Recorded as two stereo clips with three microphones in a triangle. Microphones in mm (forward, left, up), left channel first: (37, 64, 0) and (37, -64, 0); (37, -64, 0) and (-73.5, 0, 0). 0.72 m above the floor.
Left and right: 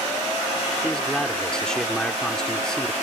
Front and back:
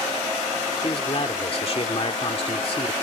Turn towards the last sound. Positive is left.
turn(degrees=5)